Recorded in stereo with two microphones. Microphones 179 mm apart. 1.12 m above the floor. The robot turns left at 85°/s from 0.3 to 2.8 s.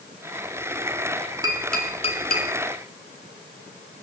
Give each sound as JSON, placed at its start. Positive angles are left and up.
{"t": 1.4, "sound": "tapping", "side_deg": -20, "distance_m": 2.5}